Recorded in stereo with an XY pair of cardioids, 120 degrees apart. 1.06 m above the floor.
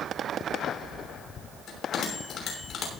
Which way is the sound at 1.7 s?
55° left.